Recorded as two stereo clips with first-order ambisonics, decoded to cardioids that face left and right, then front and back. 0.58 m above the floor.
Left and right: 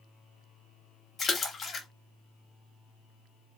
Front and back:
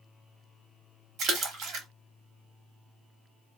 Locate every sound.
1.2 s a splash: 155° left, 0.7 m